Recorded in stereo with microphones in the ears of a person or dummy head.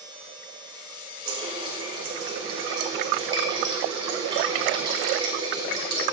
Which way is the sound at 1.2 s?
25° right (ahead or behind).